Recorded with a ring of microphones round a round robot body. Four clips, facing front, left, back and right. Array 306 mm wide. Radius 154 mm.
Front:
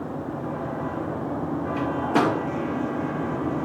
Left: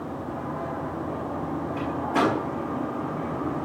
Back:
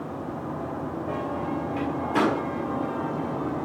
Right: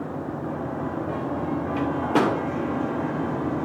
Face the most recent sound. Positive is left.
turn(degrees=-65)